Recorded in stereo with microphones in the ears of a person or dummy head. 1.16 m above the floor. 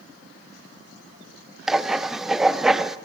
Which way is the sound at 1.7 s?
10° right (ahead or behind).